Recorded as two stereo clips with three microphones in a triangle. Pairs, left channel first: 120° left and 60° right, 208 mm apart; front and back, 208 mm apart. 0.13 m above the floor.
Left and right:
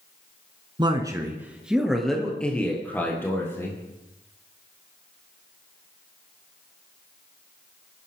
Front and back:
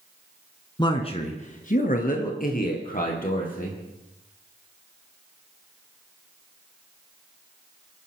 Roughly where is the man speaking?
Ahead right.